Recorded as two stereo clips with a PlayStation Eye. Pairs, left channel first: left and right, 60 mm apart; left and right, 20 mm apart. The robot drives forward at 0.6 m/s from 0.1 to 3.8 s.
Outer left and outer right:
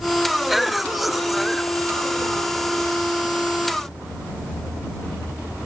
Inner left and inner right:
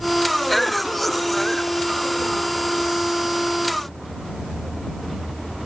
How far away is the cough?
About 0.6 m.